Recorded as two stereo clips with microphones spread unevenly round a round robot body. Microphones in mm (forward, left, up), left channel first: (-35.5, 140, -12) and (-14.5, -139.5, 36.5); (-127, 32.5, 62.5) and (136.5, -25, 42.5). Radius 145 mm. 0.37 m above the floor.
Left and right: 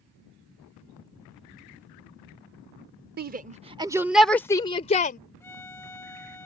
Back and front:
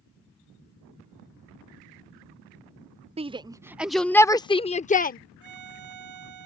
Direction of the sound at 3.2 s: 45° right.